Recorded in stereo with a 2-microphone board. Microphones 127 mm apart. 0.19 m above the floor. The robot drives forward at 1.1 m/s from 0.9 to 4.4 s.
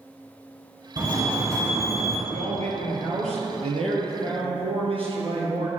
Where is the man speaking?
70° right (ahead or behind), 3 m; by 5.7 s 50° right (ahead or behind), 4 m.